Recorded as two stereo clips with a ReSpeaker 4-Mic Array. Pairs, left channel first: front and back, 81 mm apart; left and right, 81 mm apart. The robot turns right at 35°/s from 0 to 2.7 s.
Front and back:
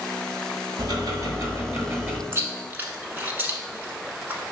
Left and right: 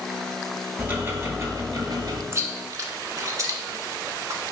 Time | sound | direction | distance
0.8 | ticking | 160° right | 1.0 m
2.3 | chewing | 135° right | 0.7 m